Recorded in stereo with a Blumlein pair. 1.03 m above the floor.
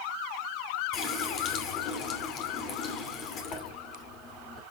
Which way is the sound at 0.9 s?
30° left.